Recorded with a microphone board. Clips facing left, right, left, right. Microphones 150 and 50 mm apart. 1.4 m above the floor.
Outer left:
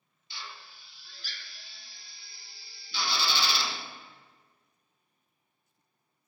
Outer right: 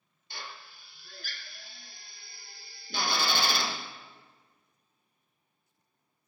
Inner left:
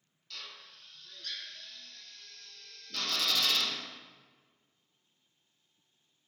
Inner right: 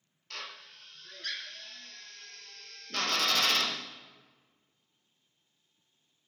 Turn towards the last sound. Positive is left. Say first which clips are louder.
# outer right 1 dB, inner right 4 dB
turn(degrees=-50)  # may be behind; listen again after turning